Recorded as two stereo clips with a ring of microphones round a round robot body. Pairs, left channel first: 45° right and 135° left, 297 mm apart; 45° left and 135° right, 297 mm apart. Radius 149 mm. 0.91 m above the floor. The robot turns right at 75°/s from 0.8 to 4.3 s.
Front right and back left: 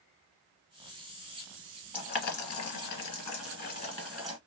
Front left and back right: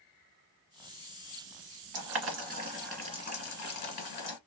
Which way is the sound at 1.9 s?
115° right.